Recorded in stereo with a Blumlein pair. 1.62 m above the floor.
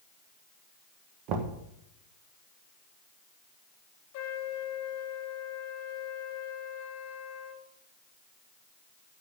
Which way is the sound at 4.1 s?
50° left.